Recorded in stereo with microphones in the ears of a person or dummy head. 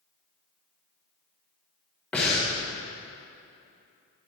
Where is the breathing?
10° left (ahead or behind), 2 m.